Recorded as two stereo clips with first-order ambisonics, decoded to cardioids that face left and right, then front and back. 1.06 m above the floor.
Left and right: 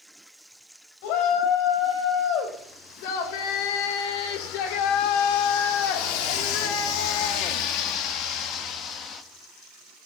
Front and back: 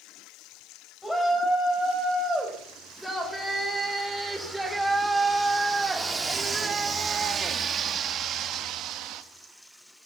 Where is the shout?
85° left, 5 m; by 9.2 s 150° left, 1.4 m.